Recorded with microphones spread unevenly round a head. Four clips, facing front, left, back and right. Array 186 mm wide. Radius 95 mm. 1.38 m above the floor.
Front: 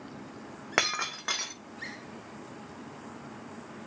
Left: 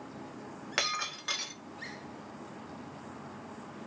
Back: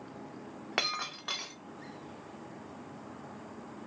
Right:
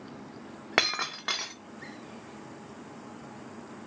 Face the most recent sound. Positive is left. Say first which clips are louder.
# right 6 dB, front 5 dB
turn(degrees=-55)